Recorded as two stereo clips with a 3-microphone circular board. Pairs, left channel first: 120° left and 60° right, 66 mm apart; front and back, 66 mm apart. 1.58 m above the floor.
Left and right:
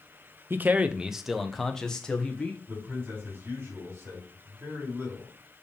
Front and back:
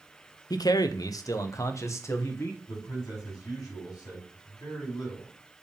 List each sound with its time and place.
0.5 s a man speaking: 5° right, 0.6 m; by 2.6 s 50° left, 1.6 m
2.7 s a man speaking: 10° right, 4 m